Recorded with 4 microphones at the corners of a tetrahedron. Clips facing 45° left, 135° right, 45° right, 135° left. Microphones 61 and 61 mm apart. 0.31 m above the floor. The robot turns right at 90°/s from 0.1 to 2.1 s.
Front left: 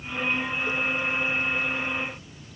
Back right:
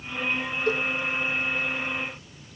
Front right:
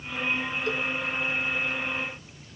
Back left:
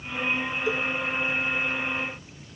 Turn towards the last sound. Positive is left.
turn(degrees=-20)